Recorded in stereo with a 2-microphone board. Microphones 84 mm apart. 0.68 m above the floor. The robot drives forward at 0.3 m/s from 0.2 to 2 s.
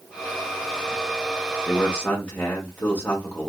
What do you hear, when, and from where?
1.7 s a man speaking: 25° left (ahead or behind), 1.2 m; by 3.5 s 20° left (ahead or behind), 1.2 m